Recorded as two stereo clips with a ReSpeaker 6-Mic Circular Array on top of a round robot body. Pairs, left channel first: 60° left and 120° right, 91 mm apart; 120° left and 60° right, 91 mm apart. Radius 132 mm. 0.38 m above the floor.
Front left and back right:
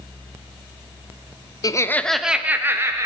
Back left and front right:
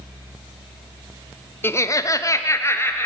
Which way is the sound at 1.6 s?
70° left.